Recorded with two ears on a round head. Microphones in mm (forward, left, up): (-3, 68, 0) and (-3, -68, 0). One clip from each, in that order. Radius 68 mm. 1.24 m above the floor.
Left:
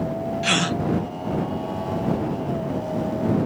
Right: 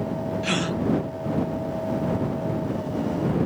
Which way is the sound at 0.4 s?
25° left (ahead or behind).